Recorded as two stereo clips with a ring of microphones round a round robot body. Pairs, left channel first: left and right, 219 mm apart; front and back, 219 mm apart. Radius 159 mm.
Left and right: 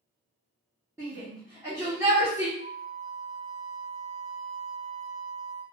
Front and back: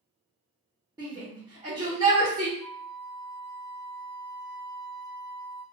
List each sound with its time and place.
1.0 s a shout: 145° right, 1.0 m
2.6 s a flute: 25° right, 1.3 m